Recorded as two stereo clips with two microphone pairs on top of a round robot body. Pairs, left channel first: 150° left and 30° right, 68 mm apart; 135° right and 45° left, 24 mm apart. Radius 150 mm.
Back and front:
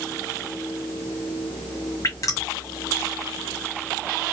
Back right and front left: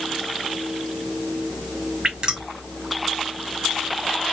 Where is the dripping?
105° left, 1.1 m.